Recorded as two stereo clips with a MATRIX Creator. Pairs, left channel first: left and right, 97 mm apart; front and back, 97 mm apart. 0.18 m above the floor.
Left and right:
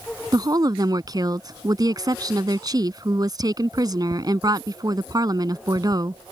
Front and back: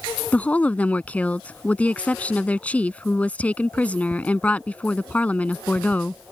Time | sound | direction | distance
0.3 | a woman speaking | 70° right | ?